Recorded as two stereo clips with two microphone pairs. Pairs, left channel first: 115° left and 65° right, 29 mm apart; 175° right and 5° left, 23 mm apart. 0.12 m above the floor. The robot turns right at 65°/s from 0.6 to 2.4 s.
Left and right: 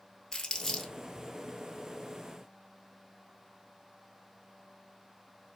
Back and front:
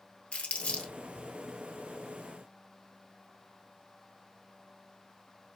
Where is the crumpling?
175° right, 1.5 m; by 0.9 s 155° right, 1.5 m.